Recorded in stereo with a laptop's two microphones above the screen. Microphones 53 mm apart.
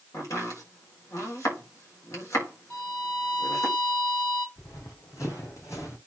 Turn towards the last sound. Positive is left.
turn(degrees=70)  # may be behind; listen again after turning